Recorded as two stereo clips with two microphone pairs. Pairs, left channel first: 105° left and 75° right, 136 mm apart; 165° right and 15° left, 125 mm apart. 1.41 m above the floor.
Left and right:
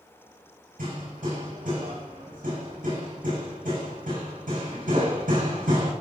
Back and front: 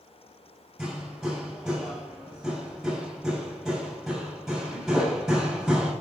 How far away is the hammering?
About 7.5 m.